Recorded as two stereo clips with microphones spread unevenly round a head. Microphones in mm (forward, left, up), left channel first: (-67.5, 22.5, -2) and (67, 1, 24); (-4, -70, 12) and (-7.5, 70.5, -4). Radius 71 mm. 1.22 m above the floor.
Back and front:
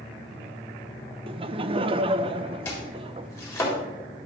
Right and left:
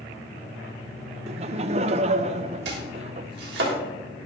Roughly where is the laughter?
Ahead left.